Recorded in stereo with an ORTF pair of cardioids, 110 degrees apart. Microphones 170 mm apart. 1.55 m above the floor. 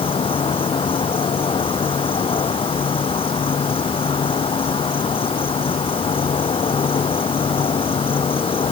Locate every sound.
0.0 s an insect: 35° left